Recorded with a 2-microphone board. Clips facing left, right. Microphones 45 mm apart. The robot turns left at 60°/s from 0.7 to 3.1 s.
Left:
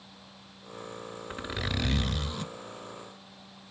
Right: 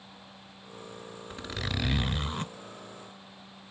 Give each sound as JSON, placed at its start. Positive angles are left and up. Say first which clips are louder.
{"t": 1.3, "sound": "a zipper", "louder": "left 1 dB", "azimuth_deg": 25, "distance_m": 0.5}